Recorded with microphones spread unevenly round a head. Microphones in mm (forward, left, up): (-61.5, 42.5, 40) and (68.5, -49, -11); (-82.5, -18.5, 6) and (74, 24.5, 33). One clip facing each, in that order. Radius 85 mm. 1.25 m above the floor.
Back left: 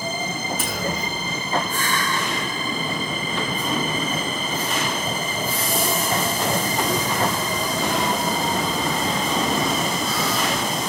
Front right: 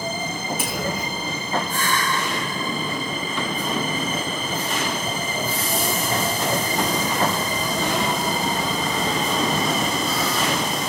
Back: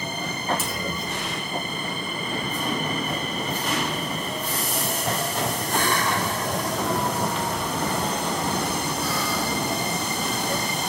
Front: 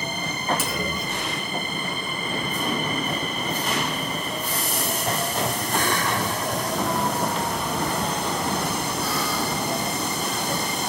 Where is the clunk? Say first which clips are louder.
Even, front 2 dB; 45° left, 6.5 m.